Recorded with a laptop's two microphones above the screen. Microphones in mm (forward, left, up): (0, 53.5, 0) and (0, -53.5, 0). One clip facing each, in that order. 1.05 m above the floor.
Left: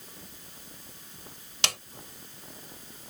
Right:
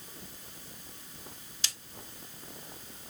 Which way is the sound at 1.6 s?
75° left (ahead or behind).